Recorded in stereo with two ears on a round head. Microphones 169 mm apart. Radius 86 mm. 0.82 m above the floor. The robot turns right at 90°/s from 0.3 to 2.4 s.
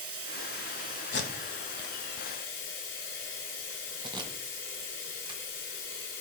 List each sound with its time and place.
0.0 s running water: 80° right, 5.5 m; by 6.2 s 110° left, 5.5 m
1.1 s tape being pulled: 70° left (ahead or behind), 1.4 m; by 5.4 s 25° right (ahead or behind), 1.4 m